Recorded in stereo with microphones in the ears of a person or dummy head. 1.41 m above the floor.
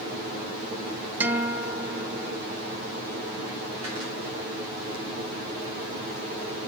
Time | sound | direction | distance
1.2 | a guitar | 5° right (ahead or behind) | 0.6 m